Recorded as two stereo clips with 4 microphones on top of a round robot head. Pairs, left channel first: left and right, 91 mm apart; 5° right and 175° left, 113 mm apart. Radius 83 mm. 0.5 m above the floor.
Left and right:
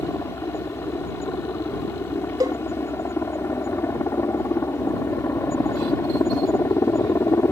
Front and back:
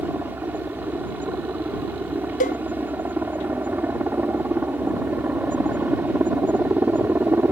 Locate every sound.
0.0 s a helicopter: 115° left
2.4 s a cowbell: 25° right